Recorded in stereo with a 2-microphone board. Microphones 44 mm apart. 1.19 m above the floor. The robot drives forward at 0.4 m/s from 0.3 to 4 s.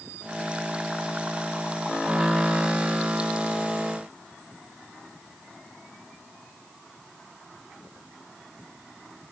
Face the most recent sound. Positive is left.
No sound to turn to.